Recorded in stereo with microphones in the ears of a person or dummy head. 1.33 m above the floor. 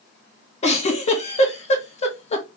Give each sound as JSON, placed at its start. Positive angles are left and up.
{"t": 0.6, "sound": "a giggle", "side_deg": 35, "distance_m": 1.4}